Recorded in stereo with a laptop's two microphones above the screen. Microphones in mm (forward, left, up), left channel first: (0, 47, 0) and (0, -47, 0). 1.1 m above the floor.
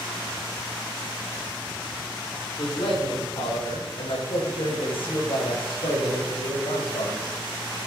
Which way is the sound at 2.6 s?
70° left (ahead or behind).